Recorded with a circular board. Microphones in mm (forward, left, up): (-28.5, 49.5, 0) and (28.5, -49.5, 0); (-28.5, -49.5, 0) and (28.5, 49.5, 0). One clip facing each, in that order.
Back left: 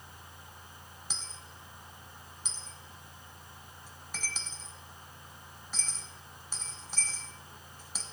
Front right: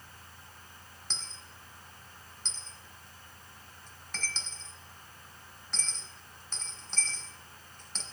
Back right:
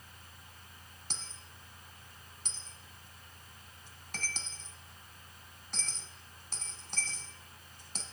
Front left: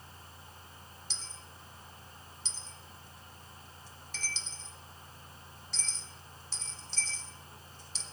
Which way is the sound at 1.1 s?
160° right.